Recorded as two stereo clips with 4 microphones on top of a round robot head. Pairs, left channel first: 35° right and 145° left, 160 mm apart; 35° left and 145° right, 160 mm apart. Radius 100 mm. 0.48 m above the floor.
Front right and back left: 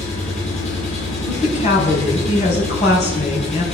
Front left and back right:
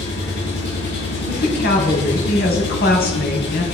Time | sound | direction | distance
0.0 | an engine running | 15° left | 7 m
1.3 | a woman speaking | 10° left | 4 m